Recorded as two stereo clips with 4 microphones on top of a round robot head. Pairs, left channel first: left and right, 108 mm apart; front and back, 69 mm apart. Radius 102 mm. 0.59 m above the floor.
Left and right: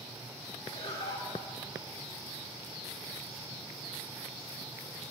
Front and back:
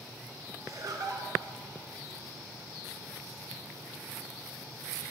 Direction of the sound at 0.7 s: 145° left.